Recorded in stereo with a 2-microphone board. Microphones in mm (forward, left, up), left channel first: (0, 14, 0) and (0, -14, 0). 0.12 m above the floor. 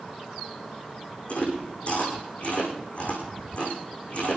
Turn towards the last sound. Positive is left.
turn(degrees=50)  # may be behind; listen again after turning